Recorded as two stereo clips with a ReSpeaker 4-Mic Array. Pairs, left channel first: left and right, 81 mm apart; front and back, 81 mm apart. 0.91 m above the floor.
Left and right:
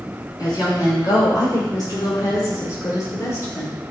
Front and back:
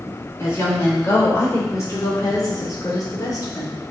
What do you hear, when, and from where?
0.4 s a woman speaking: 55° left, 4.5 m; by 3.8 s 30° left, 3 m